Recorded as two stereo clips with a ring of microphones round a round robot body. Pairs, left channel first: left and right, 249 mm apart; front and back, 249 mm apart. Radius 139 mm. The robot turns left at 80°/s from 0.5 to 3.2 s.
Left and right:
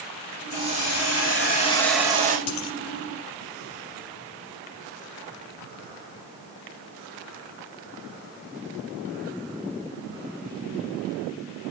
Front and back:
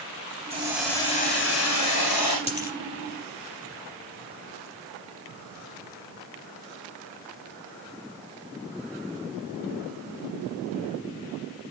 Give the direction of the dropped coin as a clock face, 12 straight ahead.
10 o'clock.